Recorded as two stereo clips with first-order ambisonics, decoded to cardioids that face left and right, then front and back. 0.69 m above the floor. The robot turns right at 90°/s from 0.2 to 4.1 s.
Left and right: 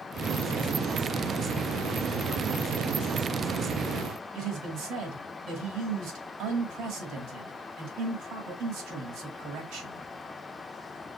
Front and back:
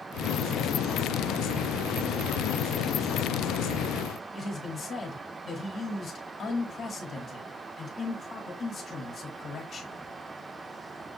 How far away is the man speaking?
About 1.6 m.